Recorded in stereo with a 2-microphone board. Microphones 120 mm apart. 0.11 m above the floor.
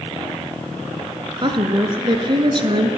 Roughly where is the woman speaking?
Right.